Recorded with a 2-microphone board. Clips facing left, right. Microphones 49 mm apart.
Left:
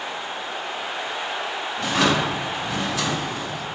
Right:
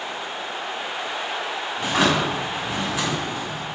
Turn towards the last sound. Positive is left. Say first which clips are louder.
# even
turn(degrees=-15)  # may be behind; listen again after turning